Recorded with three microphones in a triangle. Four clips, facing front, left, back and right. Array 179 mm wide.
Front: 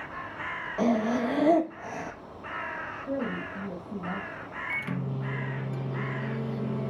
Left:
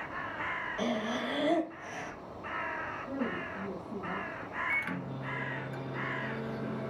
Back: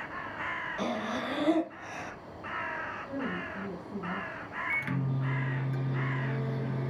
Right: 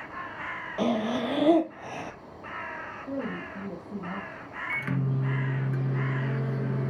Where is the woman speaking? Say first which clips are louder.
Right 3 dB, front 6 dB; 40° right, 3.5 m.